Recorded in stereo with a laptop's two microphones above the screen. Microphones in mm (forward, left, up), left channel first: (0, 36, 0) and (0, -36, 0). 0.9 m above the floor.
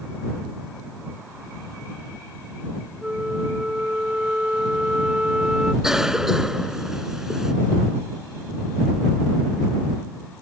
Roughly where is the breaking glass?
No breaking glass in this recording.